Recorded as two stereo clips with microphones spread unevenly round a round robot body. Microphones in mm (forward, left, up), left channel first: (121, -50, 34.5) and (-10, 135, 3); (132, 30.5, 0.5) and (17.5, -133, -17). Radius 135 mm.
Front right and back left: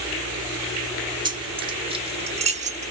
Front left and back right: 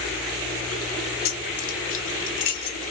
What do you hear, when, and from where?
1.2 s keys jangling: 60° left, 1.5 m; by 2.9 s 95° left, 0.8 m